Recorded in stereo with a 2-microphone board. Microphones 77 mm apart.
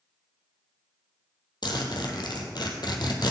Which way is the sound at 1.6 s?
65° left (ahead or behind).